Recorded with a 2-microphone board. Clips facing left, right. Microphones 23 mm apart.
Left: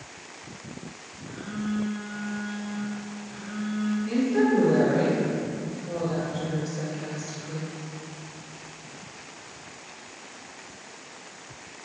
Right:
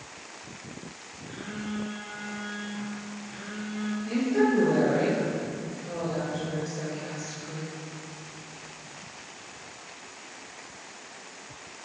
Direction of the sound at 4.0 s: 5° left (ahead or behind).